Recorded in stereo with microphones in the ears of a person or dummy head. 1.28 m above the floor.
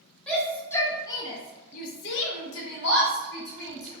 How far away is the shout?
About 1.1 m.